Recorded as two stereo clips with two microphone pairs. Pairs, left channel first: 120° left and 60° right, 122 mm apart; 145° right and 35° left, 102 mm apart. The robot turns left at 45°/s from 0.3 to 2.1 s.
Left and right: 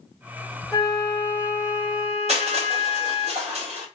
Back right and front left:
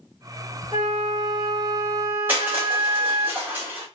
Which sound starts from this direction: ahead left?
A flute, at 0.7 s.